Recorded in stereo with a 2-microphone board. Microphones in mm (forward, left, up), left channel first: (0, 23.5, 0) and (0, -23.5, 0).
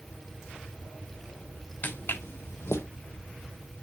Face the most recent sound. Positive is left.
turn(degrees=85)